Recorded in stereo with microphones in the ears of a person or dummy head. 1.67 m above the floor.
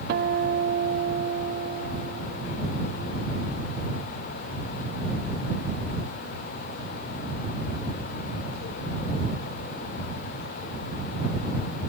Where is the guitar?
55° right (ahead or behind).